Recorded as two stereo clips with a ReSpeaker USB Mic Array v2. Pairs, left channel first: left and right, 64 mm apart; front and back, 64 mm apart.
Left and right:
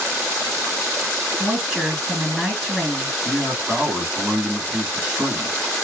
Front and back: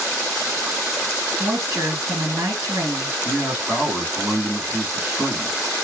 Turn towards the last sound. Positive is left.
turn(degrees=-140)